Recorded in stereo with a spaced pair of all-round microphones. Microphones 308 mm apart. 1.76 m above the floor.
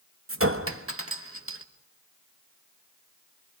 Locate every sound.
0.3 s a clink: 50° right (ahead or behind), 1.4 m